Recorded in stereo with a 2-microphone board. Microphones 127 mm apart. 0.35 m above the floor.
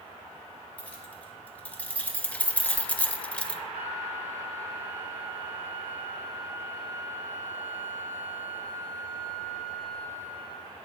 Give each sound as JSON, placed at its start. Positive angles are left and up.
{"t": 0.8, "sound": "keys jangling", "side_deg": 10, "distance_m": 2.0}
{"t": 3.7, "sound": "a flute", "side_deg": -15, "distance_m": 6.5}